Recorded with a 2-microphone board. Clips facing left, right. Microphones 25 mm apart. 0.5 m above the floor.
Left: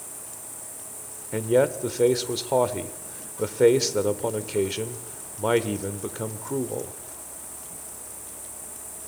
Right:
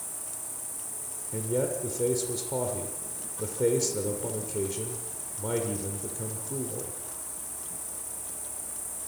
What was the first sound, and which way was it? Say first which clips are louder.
An insect: even; 70° right (ahead or behind).